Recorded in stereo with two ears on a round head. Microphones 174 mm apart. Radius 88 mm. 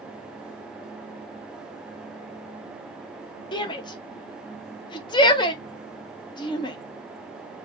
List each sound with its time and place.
3.5 s a shout: 25° left (ahead or behind), 0.5 m